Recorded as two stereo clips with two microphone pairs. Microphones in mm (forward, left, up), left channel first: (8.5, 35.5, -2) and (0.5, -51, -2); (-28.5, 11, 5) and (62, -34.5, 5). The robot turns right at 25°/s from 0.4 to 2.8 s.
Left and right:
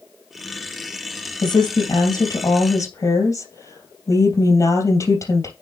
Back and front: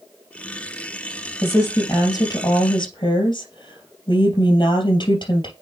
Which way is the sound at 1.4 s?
90° left.